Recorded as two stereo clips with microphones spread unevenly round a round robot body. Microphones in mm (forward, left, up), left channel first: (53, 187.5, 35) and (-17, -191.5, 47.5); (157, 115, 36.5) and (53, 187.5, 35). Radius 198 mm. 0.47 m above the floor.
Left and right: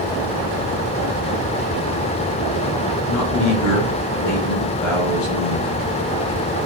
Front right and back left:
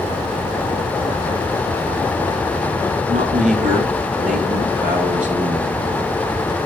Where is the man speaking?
130° left, 4.5 m; by 5.8 s 125° left, 6.5 m.